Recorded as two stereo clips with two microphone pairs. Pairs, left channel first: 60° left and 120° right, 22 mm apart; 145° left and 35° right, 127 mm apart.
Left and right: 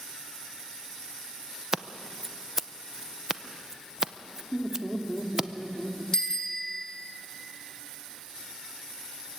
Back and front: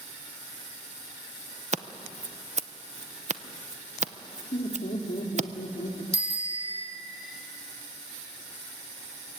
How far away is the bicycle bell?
About 3 m.